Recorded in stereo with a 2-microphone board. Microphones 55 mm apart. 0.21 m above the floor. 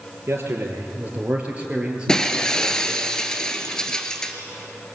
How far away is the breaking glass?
About 1.9 m.